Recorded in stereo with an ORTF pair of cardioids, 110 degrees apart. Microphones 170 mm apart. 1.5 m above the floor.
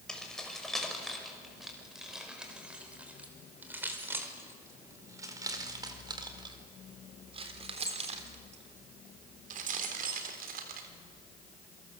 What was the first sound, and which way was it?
Keys jangling, 5° left.